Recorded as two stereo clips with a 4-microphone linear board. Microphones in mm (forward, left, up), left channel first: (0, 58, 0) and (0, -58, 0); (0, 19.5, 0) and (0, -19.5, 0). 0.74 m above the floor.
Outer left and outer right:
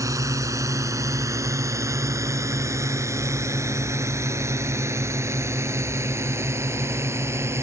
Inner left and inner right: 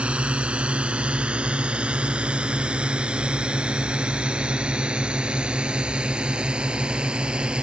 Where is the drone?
30° right (ahead or behind); by 7.6 s 20° right (ahead or behind).